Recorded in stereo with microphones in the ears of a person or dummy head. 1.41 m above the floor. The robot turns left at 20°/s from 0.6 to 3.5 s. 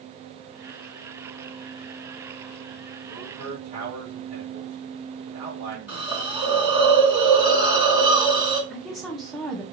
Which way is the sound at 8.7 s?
Centre (ahead or behind).